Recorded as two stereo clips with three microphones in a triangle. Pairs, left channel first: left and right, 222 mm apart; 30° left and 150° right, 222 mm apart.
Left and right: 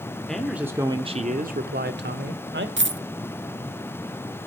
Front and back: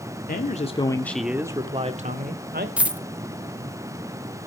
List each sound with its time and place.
0.3 s a man speaking: 5° left, 1.3 m; by 2.7 s 115° right, 1.9 m
2.8 s a dropped coin: 65° right, 0.9 m